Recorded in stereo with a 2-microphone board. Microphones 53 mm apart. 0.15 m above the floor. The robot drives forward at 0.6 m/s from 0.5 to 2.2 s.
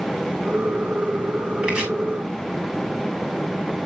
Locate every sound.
1.6 s chopping: 20° right (ahead or behind), 6.5 m